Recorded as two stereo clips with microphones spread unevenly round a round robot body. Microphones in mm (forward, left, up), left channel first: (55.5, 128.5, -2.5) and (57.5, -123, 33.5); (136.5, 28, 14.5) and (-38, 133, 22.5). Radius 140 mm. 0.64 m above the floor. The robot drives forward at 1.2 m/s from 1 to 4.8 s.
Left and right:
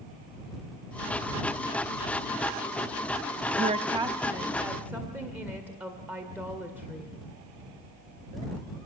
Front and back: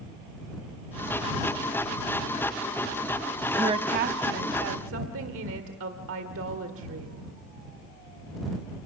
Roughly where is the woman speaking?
Behind right.